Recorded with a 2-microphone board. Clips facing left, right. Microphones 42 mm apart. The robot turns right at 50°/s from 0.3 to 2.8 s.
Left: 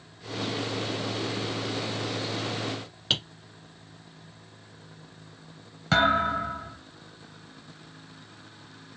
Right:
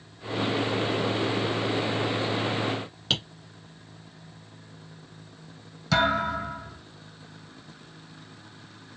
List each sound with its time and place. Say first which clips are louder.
3.1 s tapping: even; 5° left (ahead or behind), 1.9 m
5.9 s a thud: left 1 dB; 35° left (ahead or behind), 2 m